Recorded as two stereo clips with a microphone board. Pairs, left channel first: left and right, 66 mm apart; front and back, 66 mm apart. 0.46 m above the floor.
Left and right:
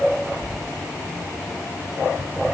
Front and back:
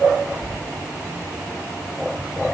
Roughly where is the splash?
I don't hear a splash.